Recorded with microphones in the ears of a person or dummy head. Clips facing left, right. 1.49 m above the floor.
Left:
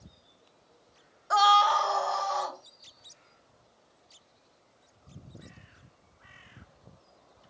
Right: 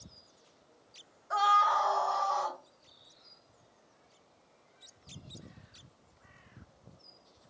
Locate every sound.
1.3 s a scream: 70° left (ahead or behind), 0.5 m; by 2.6 s 20° left (ahead or behind), 1.7 m